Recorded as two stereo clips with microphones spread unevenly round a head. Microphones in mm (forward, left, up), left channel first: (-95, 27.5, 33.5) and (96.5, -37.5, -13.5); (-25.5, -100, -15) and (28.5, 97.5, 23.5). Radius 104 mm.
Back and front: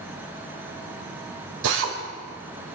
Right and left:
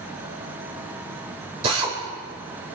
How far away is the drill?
About 5 m.